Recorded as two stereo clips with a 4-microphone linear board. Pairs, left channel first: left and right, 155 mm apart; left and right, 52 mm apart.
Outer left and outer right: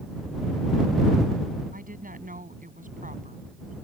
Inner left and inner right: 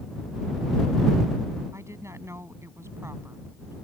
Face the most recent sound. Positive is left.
turn(degrees=-55)  # may be behind; listen again after turning